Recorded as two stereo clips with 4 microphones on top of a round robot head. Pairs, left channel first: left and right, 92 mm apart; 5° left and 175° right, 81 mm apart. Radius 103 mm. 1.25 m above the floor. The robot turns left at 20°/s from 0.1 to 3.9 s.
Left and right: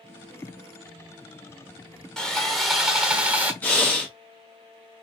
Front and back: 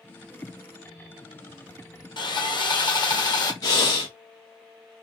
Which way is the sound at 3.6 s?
20° left.